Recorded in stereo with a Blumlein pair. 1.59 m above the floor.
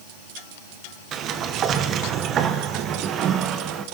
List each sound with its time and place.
1.1 s a sliding door: 30° right, 1.2 m